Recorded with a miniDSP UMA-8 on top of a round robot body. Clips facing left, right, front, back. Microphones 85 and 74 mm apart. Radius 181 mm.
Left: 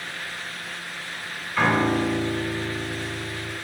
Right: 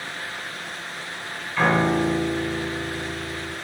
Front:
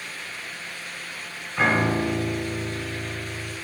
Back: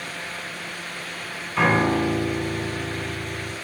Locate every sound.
1.6 s a piano: 175° left, 4.5 m